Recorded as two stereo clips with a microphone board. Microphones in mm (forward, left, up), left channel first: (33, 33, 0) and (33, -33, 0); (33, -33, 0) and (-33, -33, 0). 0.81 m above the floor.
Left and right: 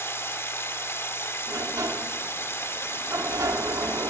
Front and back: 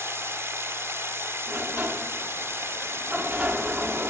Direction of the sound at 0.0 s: 135° left.